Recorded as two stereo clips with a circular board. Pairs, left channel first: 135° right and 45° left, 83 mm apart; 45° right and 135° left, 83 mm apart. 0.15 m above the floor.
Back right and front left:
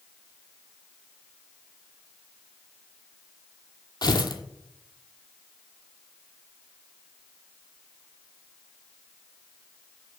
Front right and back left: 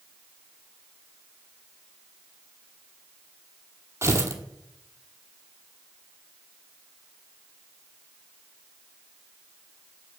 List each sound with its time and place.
4.0 s tearing paper: 170° right, 1.0 m